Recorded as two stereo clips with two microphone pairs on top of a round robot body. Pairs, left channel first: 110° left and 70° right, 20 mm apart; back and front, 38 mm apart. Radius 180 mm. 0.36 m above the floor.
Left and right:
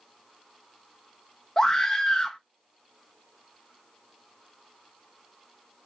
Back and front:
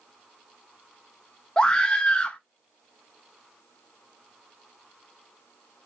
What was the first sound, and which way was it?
A scream, straight behind.